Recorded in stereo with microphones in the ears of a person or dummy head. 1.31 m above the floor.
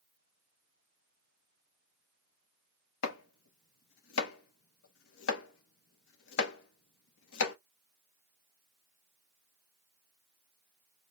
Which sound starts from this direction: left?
Chopping, at 3.0 s.